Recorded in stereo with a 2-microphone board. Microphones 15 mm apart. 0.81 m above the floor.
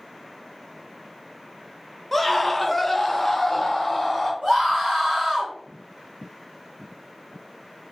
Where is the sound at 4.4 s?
25° right (ahead or behind), 1.9 m.